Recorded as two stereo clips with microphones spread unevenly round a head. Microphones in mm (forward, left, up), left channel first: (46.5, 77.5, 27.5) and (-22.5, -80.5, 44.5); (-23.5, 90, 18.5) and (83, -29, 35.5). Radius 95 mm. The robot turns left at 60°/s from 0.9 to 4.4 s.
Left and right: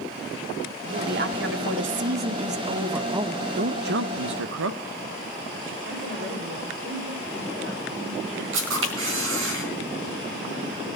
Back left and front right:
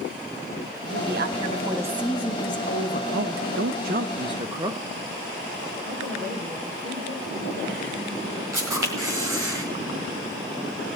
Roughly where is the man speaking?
Ahead right.